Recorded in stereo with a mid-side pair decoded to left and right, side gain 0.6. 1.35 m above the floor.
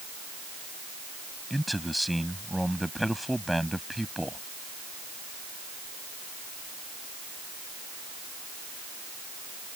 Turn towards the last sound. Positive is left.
turn(degrees=0)